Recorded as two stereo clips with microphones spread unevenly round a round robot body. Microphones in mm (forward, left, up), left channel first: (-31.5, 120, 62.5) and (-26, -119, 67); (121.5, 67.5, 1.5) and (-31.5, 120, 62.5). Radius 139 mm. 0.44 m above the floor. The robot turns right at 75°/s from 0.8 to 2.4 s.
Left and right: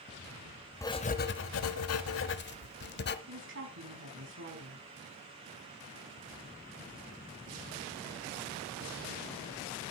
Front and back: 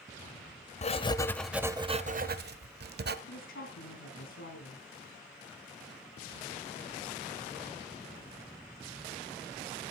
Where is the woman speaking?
50° right, 3.5 m.